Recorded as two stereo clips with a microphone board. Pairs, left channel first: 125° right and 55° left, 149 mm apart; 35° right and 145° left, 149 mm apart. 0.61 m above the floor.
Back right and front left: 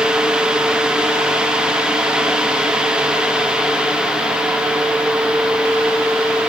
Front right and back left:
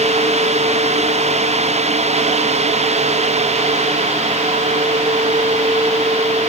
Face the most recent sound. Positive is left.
No sound to turn to.